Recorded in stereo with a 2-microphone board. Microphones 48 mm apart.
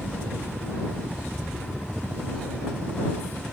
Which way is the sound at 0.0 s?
45° right (ahead or behind).